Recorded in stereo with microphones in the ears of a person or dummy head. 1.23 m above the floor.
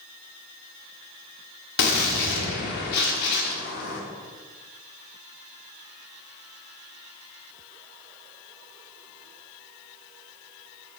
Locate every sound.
1.8 s a gunshot: 60° left (ahead or behind), 1.3 m